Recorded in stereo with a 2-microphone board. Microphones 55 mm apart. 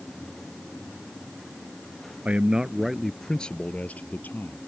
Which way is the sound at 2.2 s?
20° right (ahead or behind).